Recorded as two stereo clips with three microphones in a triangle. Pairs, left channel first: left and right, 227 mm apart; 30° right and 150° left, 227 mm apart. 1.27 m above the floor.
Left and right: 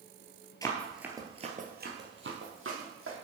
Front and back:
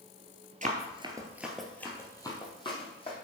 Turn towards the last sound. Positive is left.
turn(degrees=-95)